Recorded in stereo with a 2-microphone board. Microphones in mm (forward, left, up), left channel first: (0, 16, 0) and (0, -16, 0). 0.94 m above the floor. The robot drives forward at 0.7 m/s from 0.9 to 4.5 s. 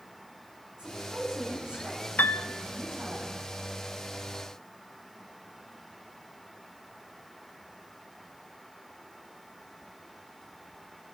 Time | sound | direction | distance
0.8 | a woman speaking | 20° right (ahead or behind) | 7.5 m
2.2 | a piano | 65° left (ahead or behind) | 0.5 m